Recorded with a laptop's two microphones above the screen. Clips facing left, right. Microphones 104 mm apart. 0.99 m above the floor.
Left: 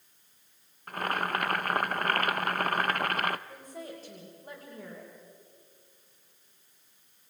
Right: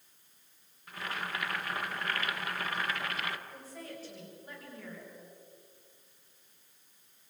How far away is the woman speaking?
About 5 m.